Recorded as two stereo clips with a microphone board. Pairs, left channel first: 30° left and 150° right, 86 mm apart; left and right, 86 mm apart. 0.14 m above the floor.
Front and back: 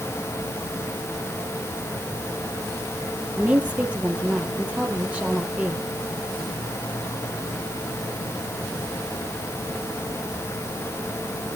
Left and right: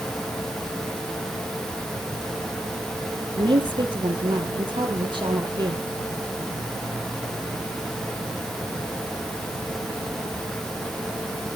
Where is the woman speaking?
75° right, 4 m.